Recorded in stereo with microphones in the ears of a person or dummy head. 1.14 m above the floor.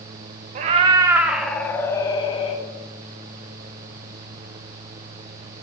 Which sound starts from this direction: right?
A cat meowing, at 0.6 s.